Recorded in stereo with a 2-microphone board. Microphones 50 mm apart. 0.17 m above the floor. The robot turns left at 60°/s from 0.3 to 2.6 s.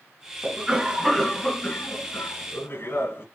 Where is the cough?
150° right, 1.8 m; by 3.2 s 80° left, 1.8 m.